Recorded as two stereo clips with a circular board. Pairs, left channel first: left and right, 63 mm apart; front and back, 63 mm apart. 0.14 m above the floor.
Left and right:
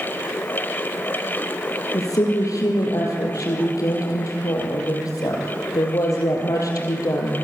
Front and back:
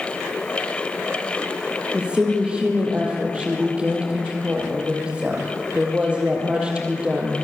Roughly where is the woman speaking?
Left.